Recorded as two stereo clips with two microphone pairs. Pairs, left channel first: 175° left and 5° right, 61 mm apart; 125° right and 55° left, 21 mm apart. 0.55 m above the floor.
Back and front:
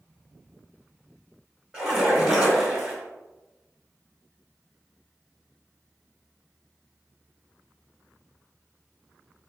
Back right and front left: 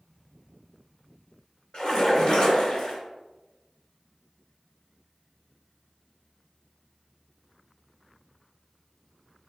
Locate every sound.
1.7 s a splash: 85° right, 2.0 m